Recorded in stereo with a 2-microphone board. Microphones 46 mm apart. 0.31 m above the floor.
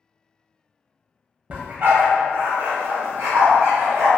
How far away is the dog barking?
About 0.5 m.